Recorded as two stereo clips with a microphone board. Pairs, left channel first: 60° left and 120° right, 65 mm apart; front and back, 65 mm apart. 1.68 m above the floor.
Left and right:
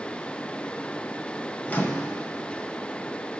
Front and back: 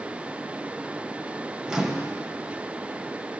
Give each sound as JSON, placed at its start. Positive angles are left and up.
{"t": 1.7, "sound": "a microwave", "azimuth_deg": 105, "distance_m": 0.7}